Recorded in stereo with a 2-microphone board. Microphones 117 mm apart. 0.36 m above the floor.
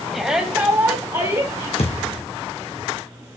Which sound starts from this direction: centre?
A shout, at 0.1 s.